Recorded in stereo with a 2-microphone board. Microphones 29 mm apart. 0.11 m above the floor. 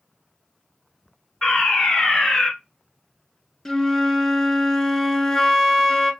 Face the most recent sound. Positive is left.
turn(degrees=20)  # may be behind; listen again after turning